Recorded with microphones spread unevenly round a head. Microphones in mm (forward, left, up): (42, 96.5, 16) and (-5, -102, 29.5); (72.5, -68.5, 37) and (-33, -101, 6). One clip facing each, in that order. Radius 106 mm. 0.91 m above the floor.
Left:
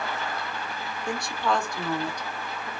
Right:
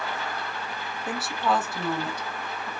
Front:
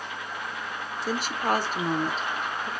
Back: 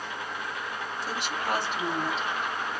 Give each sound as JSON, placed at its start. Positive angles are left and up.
{"t": 1.1, "sound": "a woman speaking", "azimuth_deg": -15, "distance_m": 0.8}